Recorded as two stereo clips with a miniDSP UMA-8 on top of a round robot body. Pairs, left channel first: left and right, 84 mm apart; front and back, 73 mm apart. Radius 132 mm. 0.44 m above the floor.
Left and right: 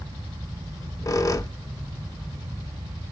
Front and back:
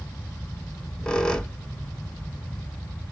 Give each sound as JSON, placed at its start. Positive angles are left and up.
{"t": 0.7, "sound": "a squeak", "azimuth_deg": 75, "distance_m": 0.8}